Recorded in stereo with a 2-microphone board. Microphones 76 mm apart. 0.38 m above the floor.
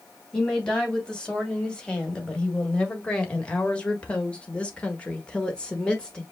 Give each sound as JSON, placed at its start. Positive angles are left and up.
{"t": 0.3, "sound": "a woman speaking", "side_deg": 10, "distance_m": 3.0}